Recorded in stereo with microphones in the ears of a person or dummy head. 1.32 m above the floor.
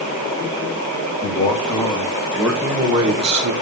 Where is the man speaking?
15° left (ahead or behind), 1.9 m; by 3.5 s 45° right (ahead or behind), 1.3 m.